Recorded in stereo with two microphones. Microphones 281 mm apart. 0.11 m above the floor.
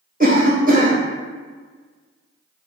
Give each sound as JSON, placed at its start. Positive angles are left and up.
{"t": 0.2, "sound": "a cough", "side_deg": -30, "distance_m": 1.7}